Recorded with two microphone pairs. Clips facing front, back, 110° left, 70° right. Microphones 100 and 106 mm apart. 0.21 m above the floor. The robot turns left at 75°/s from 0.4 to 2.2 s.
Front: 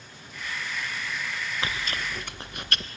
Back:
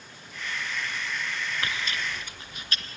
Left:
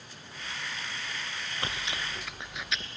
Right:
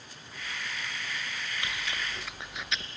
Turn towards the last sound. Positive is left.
turn(degrees=20)